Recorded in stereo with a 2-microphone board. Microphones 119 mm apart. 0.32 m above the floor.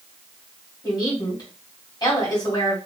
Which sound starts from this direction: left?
A woman speaking, at 0.8 s.